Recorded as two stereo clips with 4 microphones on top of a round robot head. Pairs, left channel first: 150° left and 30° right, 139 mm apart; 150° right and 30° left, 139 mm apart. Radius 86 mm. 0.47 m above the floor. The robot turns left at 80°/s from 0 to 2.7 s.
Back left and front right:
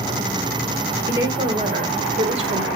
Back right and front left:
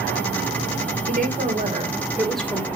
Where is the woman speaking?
45° left, 2 m; by 2.7 s 85° right, 2 m.